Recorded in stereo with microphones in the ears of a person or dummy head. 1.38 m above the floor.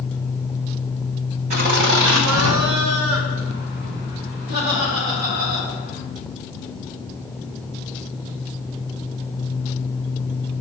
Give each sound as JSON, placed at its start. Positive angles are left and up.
{"t": 1.5, "sound": "laughter", "side_deg": -45, "distance_m": 1.6}